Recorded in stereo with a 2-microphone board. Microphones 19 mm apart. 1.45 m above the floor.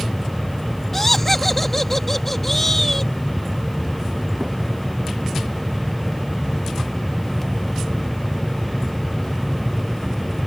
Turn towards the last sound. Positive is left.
turn(degrees=20)  # may be behind; listen again after turning